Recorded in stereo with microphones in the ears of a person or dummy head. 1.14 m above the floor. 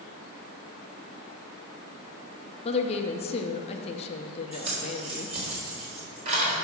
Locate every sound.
2.6 s a woman speaking: 30° left (ahead or behind), 0.6 m
4.5 s keys jangling: 35° right (ahead or behind), 3 m